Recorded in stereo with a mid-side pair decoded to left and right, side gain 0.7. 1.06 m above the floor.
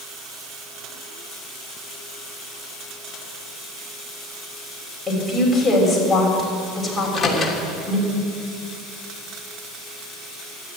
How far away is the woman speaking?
About 6 m.